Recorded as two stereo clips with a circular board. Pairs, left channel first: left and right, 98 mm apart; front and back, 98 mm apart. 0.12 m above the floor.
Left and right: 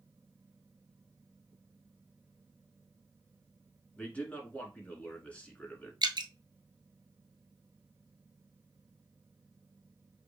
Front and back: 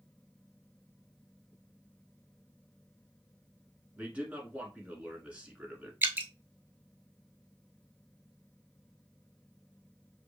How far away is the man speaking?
About 1.3 m.